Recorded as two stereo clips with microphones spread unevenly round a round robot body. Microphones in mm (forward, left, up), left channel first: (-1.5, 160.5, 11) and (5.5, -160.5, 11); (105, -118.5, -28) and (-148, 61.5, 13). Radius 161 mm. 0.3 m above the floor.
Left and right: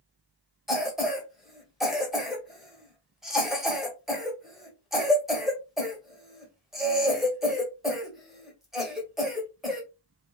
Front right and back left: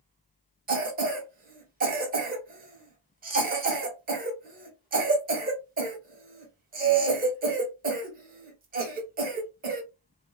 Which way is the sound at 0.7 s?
175° right.